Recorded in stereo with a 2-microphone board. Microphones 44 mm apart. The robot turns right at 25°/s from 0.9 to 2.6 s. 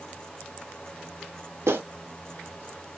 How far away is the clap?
About 1.0 m.